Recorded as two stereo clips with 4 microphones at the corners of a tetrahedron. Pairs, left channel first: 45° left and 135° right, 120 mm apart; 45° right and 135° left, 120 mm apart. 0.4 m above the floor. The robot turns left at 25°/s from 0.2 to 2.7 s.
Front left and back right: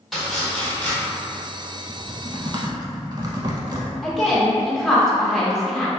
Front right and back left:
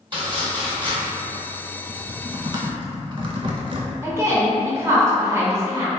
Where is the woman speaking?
130° left, 0.8 m.